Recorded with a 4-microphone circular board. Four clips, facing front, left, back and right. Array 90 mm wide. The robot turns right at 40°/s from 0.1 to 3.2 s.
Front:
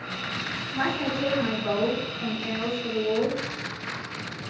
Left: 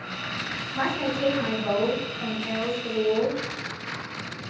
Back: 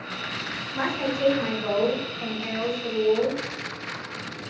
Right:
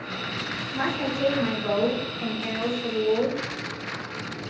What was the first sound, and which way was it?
A woman speaking, 135° left.